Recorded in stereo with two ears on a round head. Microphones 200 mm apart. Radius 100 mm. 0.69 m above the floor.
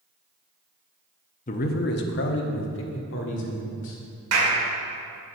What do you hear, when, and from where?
1.5 s a man speaking: 35° left (ahead or behind), 0.6 m; by 4.0 s 60° left (ahead or behind), 1.9 m
4.3 s a clap: 75° right (ahead or behind), 1.9 m